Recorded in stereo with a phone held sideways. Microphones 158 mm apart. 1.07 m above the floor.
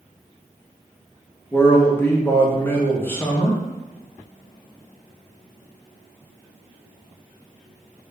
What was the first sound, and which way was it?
A man speaking, 15° left (ahead or behind).